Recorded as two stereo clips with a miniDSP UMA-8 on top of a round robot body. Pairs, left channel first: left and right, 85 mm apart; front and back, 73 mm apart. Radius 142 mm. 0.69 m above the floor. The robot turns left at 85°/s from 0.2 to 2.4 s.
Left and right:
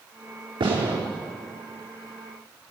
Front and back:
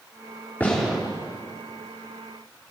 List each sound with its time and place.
0.6 s a gunshot: 65° right, 5.5 m; by 1.0 s 100° right, 5.5 m